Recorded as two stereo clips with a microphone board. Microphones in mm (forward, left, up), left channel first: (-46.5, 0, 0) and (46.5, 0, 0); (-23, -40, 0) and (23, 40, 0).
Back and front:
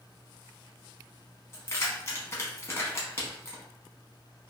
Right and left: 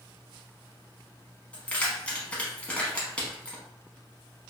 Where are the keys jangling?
Straight behind, 0.8 m.